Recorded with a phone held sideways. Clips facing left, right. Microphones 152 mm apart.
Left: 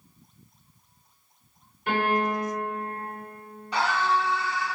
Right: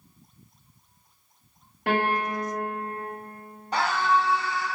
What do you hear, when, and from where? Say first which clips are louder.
1.9 s a piano: even; 75° right (ahead or behind), 2.5 m
3.7 s a scream: right 1 dB; 45° right (ahead or behind), 2.5 m